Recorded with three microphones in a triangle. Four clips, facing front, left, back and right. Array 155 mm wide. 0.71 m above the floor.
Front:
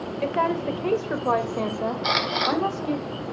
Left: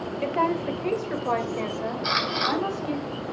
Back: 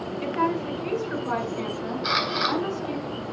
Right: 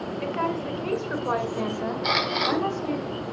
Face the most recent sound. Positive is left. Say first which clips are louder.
# right 1 dB, even
turn(degrees=-25)